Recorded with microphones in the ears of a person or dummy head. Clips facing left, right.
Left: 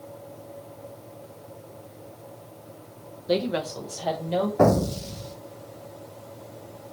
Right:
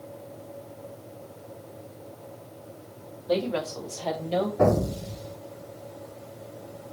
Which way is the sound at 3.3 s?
30° left (ahead or behind).